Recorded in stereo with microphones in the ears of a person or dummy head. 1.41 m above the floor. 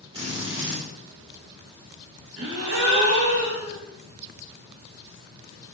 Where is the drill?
35° right (ahead or behind), 2 m.